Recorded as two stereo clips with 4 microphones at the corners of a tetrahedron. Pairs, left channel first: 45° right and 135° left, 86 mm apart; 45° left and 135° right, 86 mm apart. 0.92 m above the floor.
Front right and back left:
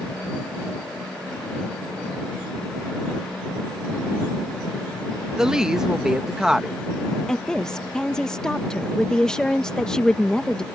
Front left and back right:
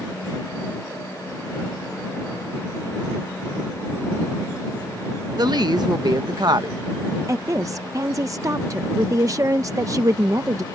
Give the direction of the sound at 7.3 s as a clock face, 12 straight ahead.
4 o'clock.